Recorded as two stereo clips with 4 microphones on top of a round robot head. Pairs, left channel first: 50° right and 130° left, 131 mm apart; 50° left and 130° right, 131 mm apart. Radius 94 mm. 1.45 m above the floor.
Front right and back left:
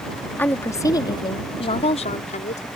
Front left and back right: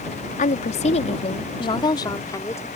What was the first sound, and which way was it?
A woman speaking, 25° left.